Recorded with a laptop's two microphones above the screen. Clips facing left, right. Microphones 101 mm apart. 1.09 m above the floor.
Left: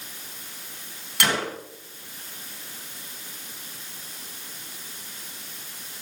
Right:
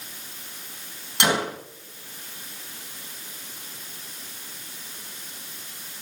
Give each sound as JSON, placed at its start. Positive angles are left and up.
{"t": 1.2, "sound": "a gunshot", "side_deg": -20, "distance_m": 1.3}